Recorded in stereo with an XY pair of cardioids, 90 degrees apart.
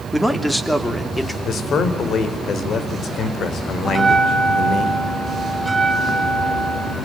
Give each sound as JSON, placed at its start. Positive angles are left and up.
{"t": 0.1, "sound": "a man speaking", "azimuth_deg": 0, "distance_m": 3.0}
{"t": 1.4, "sound": "a man speaking", "azimuth_deg": 65, "distance_m": 4.0}
{"t": 3.9, "sound": "a bell", "azimuth_deg": -15, "distance_m": 5.0}